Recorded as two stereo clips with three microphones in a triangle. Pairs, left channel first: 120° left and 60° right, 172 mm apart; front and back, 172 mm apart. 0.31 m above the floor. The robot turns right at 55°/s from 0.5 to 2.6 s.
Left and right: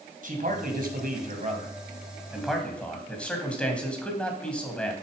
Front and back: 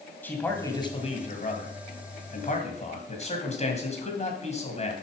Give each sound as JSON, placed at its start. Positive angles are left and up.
{"t": 0.2, "sound": "a man speaking", "azimuth_deg": -75, "distance_m": 2.5}